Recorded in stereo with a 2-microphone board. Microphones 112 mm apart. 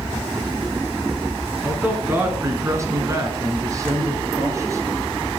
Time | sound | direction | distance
1.6 | a man speaking | 15° right (ahead or behind) | 1.1 m